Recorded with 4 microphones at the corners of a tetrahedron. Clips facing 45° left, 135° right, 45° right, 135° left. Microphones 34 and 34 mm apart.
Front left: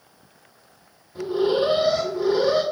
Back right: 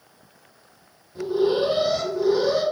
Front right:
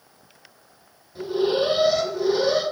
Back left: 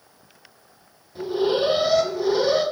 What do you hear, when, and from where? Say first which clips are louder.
1.1 s an alarm: even, even; 45° left, 1.8 m